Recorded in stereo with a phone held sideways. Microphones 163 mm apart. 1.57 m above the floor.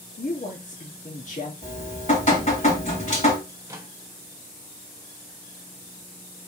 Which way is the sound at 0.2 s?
50° left (ahead or behind).